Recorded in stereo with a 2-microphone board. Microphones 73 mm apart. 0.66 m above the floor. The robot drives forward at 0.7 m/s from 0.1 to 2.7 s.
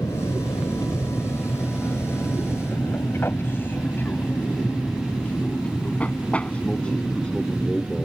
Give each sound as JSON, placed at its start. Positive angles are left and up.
{"t": 0.0, "sound": "an aircraft", "side_deg": 60}